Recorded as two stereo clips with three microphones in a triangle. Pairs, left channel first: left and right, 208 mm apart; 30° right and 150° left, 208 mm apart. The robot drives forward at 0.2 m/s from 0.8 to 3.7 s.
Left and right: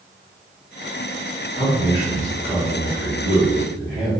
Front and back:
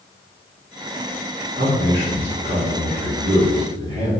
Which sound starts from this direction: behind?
A man speaking, at 1.5 s.